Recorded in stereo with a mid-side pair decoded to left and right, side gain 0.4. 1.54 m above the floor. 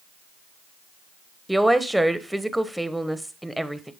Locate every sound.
1.5 s a woman speaking: 10° right, 1.1 m